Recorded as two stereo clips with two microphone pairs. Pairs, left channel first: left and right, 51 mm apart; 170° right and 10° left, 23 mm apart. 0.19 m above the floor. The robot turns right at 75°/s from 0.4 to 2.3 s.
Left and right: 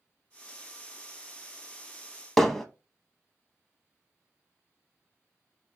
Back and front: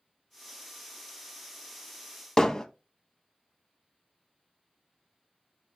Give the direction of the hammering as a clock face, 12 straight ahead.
7 o'clock.